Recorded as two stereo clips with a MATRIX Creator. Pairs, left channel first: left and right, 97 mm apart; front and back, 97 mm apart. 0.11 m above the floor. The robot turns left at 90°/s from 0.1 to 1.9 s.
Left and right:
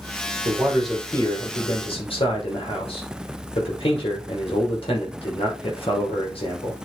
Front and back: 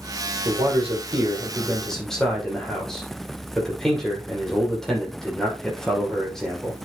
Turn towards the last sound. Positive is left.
turn(degrees=85)